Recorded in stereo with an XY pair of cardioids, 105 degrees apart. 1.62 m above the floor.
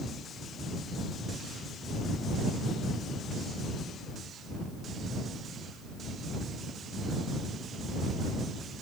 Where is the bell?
No bell in this recording.